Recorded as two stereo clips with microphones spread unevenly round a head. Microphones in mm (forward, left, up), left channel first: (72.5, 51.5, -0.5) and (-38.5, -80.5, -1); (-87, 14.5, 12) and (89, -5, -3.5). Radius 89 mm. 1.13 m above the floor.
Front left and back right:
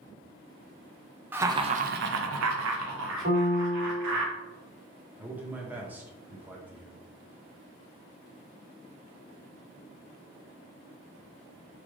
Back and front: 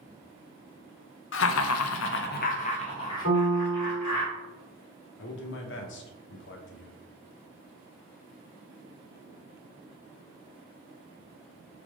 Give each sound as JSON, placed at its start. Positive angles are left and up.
{"t": 1.3, "sound": "laughter", "azimuth_deg": 150, "distance_m": 0.6}
{"t": 3.2, "sound": "a piano", "azimuth_deg": -175, "distance_m": 1.9}
{"t": 5.2, "sound": "a man speaking", "azimuth_deg": 150, "distance_m": 0.8}